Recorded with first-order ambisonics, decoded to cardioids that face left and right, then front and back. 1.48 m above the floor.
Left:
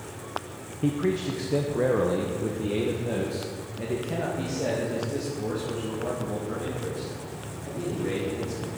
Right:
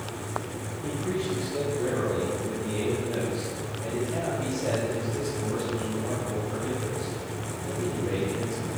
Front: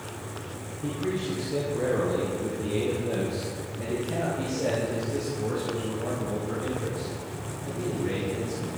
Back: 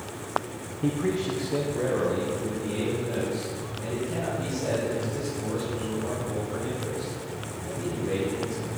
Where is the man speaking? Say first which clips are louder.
Left 4 dB, back 3 dB; 115° left, 1.0 m; by 8.7 s 50° left, 4.5 m.